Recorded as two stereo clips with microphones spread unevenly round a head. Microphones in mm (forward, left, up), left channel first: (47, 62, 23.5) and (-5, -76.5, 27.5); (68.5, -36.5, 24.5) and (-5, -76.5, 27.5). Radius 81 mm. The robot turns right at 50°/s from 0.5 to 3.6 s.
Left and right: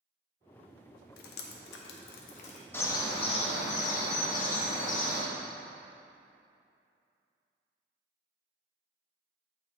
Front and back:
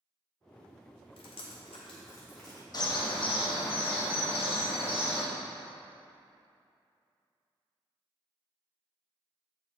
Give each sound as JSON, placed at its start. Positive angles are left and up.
{"t": 1.2, "sound": "dripping", "azimuth_deg": 50, "distance_m": 0.6}
{"t": 2.7, "sound": "a bird", "azimuth_deg": -5, "distance_m": 1.0}